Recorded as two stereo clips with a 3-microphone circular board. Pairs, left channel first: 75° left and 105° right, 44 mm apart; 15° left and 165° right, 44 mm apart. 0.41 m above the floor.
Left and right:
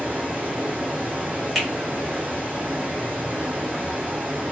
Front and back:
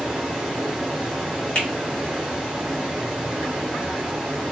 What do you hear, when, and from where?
0.0 s running water: 85° right, 1.3 m
1.6 s a finger snap: 15° right, 1.4 m